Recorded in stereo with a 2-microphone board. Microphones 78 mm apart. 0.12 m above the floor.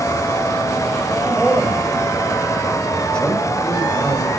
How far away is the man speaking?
About 7 m.